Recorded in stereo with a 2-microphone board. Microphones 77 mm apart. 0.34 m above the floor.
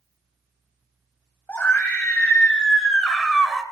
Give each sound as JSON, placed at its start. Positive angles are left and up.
{"t": 1.5, "sound": "a scream", "side_deg": 25, "distance_m": 1.9}